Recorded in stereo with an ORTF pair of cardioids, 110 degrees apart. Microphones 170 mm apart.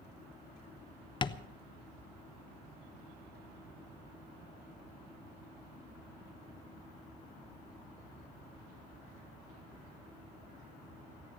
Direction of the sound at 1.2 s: 30° left.